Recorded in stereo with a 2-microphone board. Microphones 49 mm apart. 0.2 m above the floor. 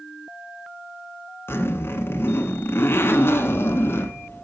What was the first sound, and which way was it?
A zipper, 55° left (ahead or behind).